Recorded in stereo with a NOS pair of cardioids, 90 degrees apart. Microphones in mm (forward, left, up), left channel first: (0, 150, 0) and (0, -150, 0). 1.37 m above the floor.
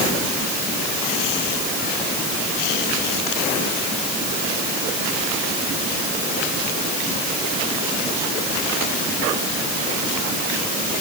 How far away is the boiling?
No boiling in this recording.